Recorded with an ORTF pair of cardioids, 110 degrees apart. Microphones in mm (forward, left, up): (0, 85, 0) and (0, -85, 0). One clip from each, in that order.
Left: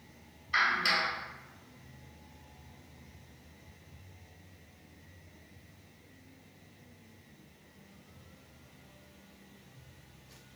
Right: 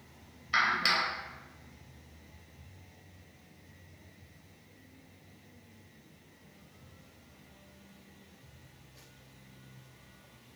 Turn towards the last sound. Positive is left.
turn(degrees=-30)